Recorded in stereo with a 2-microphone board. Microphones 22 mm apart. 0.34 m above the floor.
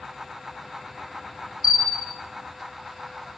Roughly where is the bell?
Right.